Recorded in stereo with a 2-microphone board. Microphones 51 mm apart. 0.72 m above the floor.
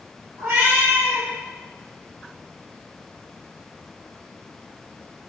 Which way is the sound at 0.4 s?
50° right (ahead or behind).